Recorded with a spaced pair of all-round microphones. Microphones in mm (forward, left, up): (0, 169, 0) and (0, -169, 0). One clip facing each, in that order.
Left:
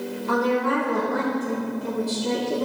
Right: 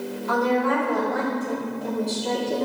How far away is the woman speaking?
About 4.5 m.